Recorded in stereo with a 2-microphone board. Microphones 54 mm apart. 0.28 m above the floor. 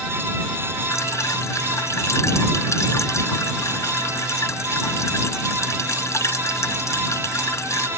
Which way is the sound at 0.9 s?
65° left (ahead or behind).